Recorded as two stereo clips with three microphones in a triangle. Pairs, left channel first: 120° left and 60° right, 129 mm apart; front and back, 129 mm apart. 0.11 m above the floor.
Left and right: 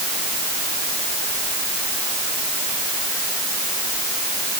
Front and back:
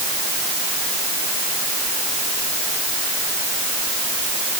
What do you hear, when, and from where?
Only background noise.